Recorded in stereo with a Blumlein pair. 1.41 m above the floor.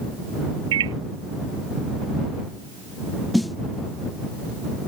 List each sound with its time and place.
0.7 s a microwave: 60° right
3.3 s a snare drum: 5° left